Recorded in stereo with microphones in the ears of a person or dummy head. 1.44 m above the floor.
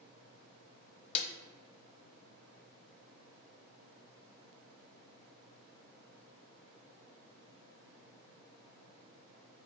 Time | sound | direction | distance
1.1 | a snare drum | 35° left (ahead or behind) | 0.6 m